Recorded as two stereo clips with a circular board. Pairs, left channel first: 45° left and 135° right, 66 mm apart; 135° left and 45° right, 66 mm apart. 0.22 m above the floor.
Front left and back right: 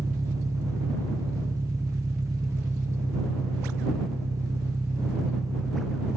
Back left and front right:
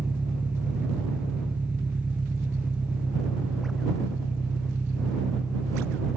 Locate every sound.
0.0 s an engine running: 115° right